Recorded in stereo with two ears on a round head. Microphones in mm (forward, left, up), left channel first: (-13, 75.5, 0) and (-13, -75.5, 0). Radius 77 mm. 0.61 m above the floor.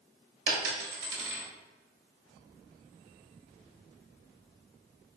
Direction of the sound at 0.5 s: 75° right (ahead or behind).